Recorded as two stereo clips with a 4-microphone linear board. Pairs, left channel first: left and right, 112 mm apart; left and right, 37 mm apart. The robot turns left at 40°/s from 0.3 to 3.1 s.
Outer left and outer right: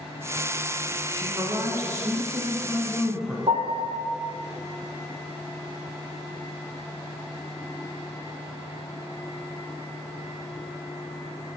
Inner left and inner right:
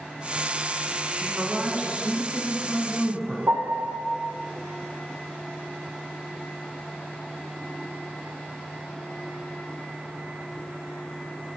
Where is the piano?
55° right (ahead or behind), 1.5 m.